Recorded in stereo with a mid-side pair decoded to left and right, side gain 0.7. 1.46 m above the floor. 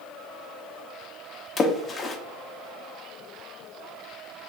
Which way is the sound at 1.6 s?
30° left.